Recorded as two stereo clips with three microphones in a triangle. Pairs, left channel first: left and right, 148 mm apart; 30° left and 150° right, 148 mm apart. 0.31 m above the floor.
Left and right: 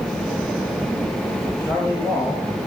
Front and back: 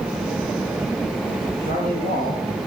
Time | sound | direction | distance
1.6 | a man speaking | 165° right | 4.5 m